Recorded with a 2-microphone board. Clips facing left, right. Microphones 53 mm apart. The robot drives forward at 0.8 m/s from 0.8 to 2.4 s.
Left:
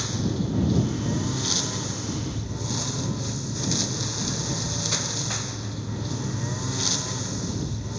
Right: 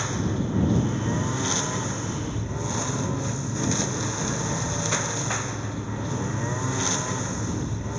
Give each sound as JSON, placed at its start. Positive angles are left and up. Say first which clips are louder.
{"t": 0.0, "sound": "a lawn mower", "louder": "right 1 dB", "side_deg": -25}